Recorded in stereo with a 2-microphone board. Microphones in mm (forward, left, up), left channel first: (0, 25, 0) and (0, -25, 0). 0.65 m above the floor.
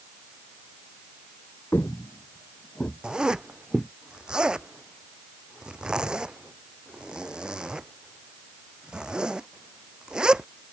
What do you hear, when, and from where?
1.7 s footsteps: 45° left (ahead or behind); by 3.9 s centre (ahead or behind)
3.0 s a zipper: 20° right (ahead or behind)